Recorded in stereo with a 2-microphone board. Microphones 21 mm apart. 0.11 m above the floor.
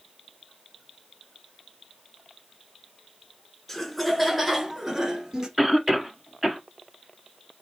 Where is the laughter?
15° left (ahead or behind), 1.2 m; by 5.5 s 25° right (ahead or behind), 1.7 m.